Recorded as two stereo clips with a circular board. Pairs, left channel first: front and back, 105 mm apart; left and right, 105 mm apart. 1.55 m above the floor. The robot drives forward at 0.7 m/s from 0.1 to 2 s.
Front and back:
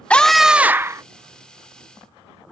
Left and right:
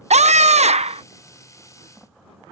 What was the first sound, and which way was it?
A scream, 80° right.